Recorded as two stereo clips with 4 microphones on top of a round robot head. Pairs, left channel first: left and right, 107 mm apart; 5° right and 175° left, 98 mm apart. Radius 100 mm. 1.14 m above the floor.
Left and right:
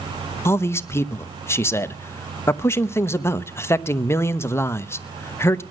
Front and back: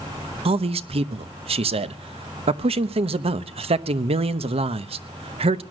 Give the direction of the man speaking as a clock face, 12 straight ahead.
7 o'clock.